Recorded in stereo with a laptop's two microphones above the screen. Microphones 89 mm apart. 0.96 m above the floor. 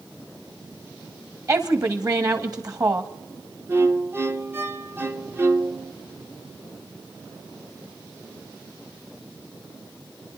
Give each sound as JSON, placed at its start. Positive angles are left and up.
{"t": 1.5, "sound": "a woman speaking", "side_deg": -40, "distance_m": 1.8}
{"t": 3.7, "sound": "a violin", "side_deg": -25, "distance_m": 0.8}